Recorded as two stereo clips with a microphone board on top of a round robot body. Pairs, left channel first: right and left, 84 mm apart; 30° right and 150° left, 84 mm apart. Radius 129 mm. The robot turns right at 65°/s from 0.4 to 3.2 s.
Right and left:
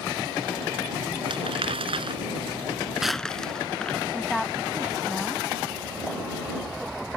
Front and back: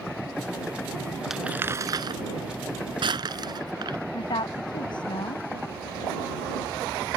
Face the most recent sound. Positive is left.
turn(degrees=0)